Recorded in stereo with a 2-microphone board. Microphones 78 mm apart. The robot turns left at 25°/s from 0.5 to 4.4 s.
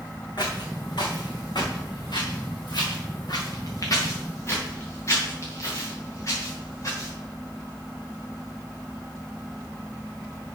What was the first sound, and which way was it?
Footsteps, 70° left (ahead or behind).